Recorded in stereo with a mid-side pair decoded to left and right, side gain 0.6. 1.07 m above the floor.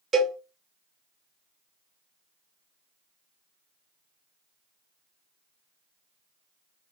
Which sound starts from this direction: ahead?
A cowbell, at 0.1 s.